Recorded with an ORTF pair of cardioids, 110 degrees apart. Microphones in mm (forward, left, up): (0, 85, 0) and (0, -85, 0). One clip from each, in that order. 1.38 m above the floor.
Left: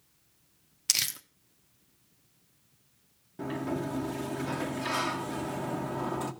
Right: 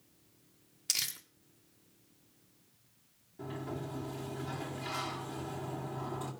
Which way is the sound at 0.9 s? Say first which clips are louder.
Left 5 dB; 30° left.